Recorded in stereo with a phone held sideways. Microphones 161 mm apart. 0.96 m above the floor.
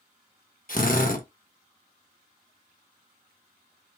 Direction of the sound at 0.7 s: 60° left (ahead or behind).